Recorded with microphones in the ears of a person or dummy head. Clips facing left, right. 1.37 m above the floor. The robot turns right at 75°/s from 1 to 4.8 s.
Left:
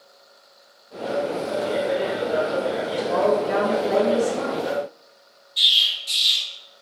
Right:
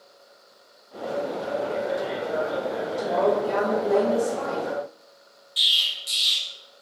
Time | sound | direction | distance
3.0 | a woman speaking | 155° left | 1.7 m
5.6 | an explosion | 55° right (ahead or behind) | 1.1 m